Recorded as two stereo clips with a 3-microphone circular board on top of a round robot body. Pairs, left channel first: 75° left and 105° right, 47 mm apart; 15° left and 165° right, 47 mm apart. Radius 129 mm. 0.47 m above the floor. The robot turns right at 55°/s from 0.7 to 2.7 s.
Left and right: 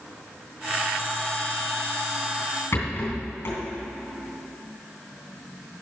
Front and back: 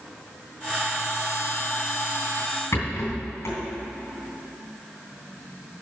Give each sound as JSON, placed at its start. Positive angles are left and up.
{"t": 2.7, "sound": "a rattle", "azimuth_deg": 45, "distance_m": 3.0}